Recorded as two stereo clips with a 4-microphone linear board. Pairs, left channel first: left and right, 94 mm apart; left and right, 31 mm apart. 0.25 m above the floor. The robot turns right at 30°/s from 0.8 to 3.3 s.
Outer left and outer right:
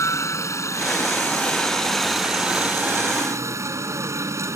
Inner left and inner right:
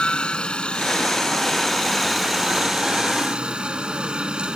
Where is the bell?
I don't hear a bell.